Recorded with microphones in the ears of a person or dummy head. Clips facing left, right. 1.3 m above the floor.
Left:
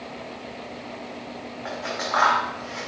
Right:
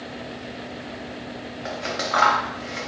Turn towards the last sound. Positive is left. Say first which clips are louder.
# right 2 dB
turn(degrees=-40)  # may be behind; listen again after turning